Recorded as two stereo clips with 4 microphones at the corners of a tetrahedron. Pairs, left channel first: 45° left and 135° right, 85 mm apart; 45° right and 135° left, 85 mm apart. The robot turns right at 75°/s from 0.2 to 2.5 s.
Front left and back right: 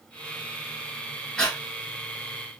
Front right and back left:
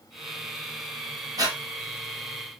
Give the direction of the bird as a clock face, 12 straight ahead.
I don't hear a bird.